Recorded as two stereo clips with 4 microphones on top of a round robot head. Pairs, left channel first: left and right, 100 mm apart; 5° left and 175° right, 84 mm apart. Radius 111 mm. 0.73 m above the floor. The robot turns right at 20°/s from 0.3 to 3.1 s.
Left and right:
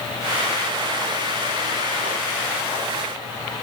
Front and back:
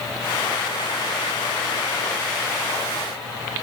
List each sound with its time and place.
Only background noise.